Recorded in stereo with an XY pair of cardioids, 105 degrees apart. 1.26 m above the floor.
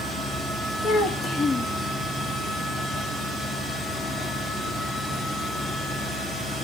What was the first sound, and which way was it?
A child speaking, 50° left.